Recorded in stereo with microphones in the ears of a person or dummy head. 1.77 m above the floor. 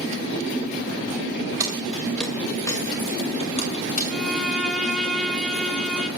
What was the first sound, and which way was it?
Keys jangling, 15° right (ahead or behind).